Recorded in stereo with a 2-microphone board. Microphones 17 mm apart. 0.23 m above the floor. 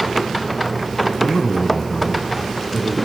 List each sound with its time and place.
1.2 s a man speaking: 45° left (ahead or behind), 1.9 m; by 3.0 s 60° left (ahead or behind), 2.5 m